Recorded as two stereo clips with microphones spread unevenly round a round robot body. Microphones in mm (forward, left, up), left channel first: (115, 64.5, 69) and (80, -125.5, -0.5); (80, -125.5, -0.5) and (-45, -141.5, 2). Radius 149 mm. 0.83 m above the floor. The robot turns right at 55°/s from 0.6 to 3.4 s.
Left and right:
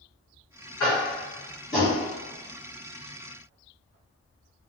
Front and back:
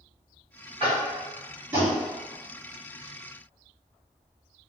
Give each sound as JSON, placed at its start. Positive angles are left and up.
{"t": 0.8, "sound": "tapping", "azimuth_deg": 90, "distance_m": 1.4}